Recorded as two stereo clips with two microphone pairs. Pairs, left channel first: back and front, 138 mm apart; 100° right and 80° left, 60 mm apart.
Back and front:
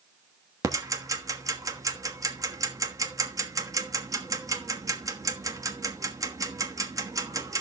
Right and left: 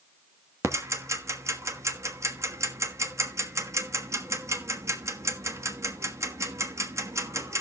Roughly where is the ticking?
Ahead left.